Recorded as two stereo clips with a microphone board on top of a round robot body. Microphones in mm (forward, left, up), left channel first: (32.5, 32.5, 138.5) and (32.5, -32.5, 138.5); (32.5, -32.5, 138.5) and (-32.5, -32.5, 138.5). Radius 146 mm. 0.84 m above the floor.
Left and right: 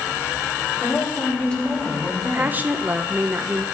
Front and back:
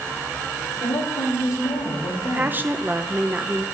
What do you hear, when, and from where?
0.7 s a woman speaking: 20° left, 5 m; by 2.6 s 5° left, 5 m
2.2 s a woman speaking: 135° right, 1.0 m